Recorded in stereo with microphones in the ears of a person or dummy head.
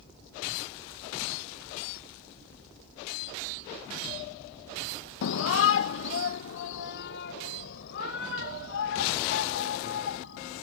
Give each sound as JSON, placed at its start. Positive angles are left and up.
{"t": 5.2, "sound": "a shout", "side_deg": 70}